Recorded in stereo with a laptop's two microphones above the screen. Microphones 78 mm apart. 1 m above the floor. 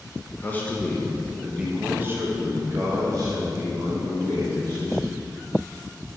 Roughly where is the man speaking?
Left.